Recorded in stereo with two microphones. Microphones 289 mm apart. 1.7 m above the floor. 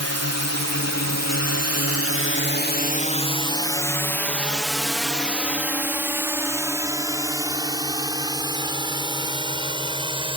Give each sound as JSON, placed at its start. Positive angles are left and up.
{"t": 0.0, "sound": "a drone", "side_deg": 60}